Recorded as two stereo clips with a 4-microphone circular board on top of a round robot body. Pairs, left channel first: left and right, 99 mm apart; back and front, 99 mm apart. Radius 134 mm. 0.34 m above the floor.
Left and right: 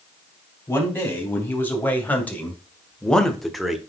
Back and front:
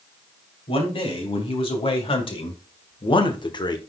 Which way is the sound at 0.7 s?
160° left.